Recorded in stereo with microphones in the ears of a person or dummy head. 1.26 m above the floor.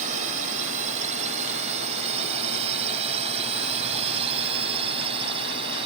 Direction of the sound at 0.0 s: 40° right (ahead or behind).